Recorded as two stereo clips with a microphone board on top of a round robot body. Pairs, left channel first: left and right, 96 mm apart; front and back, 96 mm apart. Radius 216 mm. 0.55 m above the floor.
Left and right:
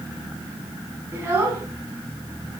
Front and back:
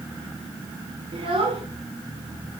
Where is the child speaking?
145° right, 1.9 m.